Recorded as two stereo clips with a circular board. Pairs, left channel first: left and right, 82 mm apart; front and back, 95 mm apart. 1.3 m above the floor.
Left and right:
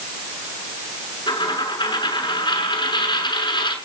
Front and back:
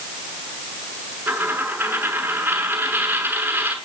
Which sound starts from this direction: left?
A dropped coin, at 1.3 s.